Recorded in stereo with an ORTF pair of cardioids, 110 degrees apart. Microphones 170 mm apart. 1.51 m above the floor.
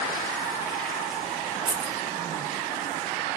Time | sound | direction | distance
1.7 | keys jangling | 70° right | 1.8 m